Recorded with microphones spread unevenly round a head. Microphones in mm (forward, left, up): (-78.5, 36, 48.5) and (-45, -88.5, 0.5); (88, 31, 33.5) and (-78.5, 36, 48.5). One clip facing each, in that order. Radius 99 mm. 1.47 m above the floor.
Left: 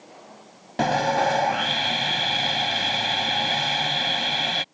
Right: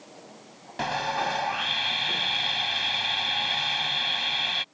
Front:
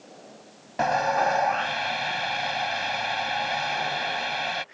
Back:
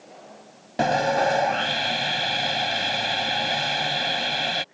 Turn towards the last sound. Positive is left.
turn(degrees=125)